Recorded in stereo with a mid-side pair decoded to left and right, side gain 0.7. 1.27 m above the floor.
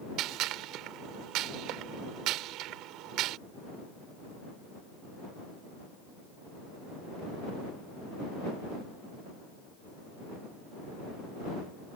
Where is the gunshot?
60° right.